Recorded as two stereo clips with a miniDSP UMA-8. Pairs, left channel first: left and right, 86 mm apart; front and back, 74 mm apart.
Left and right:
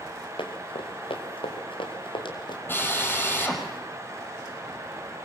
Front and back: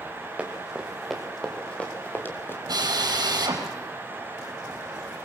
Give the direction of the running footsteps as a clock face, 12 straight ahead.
9 o'clock.